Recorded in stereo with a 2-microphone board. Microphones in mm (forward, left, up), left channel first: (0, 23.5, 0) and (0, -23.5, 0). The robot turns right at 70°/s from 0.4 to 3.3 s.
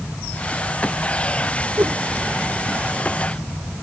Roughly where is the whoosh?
Right.